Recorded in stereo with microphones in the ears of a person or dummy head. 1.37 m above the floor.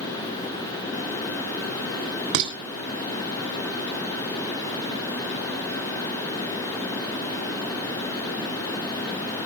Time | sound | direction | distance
2.3 | dishes clattering | 75° right (ahead or behind) | 3.5 m